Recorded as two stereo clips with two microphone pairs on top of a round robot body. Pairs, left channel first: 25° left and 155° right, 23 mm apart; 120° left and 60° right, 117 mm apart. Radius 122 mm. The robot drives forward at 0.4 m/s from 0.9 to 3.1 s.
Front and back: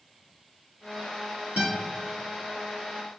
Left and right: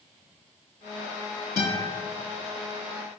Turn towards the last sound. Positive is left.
turn(degrees=-175)